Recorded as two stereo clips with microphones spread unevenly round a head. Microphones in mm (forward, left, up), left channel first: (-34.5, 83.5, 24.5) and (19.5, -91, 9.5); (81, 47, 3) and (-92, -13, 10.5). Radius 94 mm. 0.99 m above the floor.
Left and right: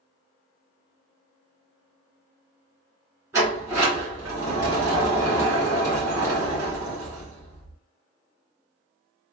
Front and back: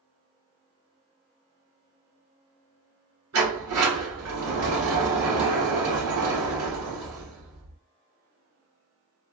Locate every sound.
3.3 s a sliding door: 145° right, 2.5 m